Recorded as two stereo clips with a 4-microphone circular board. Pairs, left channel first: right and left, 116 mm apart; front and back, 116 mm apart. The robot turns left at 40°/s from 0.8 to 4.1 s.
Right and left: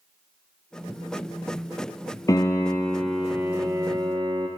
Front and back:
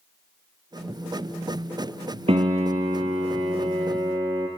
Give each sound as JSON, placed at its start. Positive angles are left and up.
{"t": 2.3, "sound": "a piano", "azimuth_deg": -150, "distance_m": 1.0}